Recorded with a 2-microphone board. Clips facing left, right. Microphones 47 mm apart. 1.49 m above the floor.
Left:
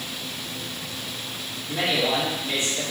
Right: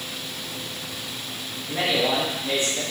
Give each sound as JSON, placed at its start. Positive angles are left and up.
{"t": 1.7, "sound": "a man speaking", "side_deg": -50, "distance_m": 2.5}